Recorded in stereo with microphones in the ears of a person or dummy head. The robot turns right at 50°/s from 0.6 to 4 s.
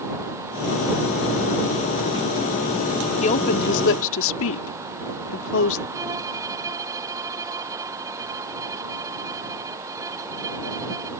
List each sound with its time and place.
3.2 s a woman speaking: 35° left (ahead or behind); by 5.8 s 75° left (ahead or behind)
5.9 s a violin: 15° right (ahead or behind)